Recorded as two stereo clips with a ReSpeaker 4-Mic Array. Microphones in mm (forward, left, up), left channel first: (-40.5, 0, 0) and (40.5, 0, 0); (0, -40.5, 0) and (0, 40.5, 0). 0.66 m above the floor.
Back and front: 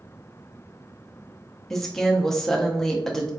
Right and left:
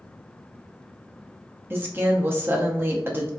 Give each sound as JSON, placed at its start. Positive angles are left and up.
{"t": 1.7, "sound": "a woman speaking", "azimuth_deg": 100, "distance_m": 0.5}